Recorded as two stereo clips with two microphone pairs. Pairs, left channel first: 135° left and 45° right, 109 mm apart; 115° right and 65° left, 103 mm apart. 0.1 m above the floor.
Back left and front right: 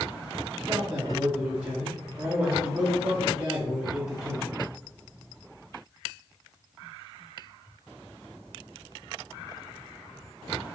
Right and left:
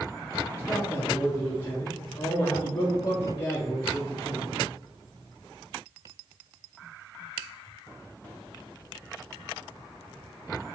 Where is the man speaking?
95° right, 1.3 m.